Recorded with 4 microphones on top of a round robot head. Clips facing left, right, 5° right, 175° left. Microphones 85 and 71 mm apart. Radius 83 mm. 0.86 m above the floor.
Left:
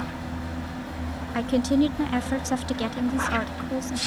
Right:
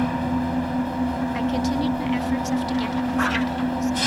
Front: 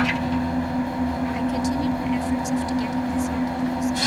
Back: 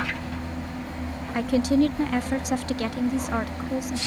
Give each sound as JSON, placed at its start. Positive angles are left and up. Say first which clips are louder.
{"t": 0.0, "sound": "an engine running", "louder": "right 10 dB, front 9 dB", "azimuth_deg": -50}
{"t": 1.3, "sound": "a woman speaking", "louder": "left 6 dB, back 2 dB", "azimuth_deg": 145}